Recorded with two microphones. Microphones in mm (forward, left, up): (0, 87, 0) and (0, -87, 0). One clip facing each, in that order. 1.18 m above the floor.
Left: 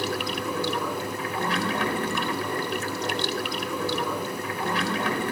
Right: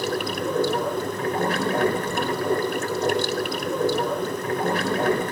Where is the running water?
45° right (ahead or behind), 3.5 m.